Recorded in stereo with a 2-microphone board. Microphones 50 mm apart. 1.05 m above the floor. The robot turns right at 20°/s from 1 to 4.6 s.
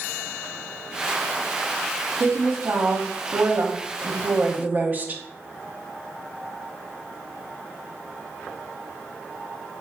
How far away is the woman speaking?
About 0.7 m.